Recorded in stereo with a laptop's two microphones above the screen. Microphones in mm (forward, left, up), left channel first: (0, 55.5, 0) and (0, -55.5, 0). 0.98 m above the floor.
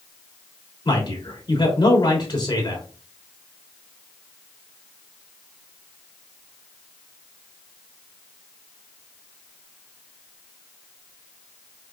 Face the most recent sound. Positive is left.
turn(degrees=45)  # may be behind; listen again after turning